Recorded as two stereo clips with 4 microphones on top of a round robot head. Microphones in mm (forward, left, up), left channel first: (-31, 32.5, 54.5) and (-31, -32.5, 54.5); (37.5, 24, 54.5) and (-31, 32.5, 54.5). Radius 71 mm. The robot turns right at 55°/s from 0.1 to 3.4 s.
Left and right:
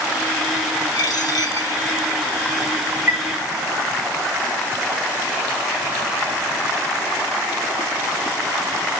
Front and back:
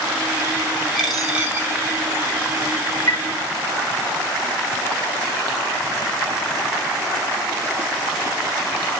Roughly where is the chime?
Ahead right.